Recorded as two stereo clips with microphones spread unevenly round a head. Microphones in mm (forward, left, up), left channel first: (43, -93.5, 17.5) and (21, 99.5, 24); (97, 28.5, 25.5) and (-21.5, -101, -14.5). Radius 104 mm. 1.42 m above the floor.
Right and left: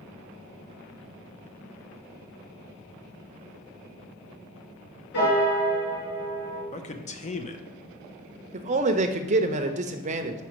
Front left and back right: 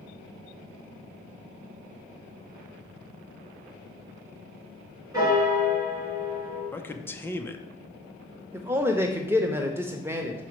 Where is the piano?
60° right, 3 m.